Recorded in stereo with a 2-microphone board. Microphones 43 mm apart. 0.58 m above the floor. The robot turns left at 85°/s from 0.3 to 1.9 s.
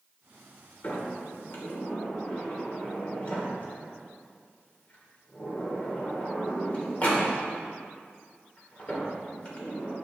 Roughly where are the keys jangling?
I don't hear keys jangling.